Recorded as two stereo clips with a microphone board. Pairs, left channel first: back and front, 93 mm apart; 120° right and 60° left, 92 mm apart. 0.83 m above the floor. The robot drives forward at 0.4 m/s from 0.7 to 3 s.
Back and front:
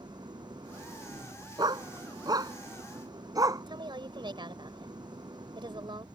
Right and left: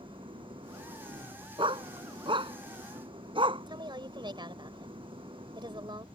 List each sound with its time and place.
0.0 s an engine running: 35° left; by 6.2 s 40° left
1.6 s a dog barking: 40° left; by 3.6 s 45° left
3.7 s a woman speaking: 30° left